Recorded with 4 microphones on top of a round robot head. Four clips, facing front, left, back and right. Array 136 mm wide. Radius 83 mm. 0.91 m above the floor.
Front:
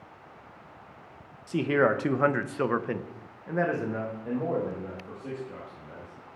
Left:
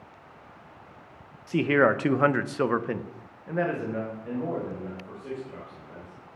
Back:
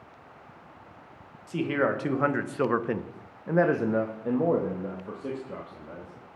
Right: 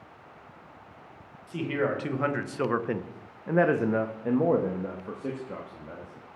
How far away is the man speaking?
About 1.0 m.